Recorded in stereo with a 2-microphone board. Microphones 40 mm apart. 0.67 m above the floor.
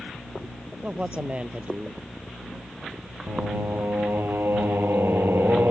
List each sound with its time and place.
0.8 s a man speaking: 30° right (ahead or behind)
3.3 s singing: 70° right (ahead or behind)